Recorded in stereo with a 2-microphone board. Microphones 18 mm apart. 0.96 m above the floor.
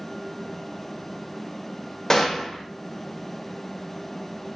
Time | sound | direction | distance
2.1 | a gunshot | 30° left (ahead or behind) | 0.7 m